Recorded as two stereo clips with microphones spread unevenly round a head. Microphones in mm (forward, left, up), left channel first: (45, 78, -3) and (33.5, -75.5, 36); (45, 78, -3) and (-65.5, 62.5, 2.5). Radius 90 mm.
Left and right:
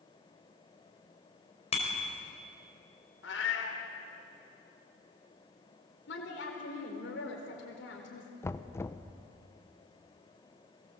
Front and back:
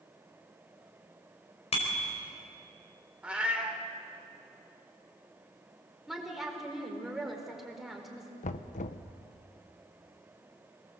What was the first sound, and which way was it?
A bicycle bell, 35° left.